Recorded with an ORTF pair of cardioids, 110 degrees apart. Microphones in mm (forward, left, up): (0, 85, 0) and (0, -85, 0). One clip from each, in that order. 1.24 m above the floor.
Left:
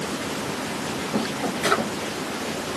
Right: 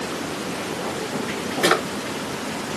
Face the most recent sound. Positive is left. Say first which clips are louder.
# right 3 dB
turn(degrees=-55)